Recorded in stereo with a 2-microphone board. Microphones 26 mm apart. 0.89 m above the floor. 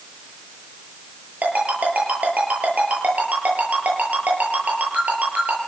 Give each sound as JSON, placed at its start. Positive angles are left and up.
{"t": 1.4, "sound": "a ringtone", "side_deg": -75, "distance_m": 9.5}